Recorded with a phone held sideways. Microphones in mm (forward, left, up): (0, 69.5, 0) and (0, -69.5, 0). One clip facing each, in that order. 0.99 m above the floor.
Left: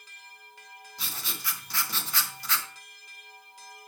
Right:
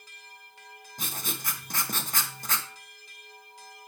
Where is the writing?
45° right (ahead or behind), 1.1 m.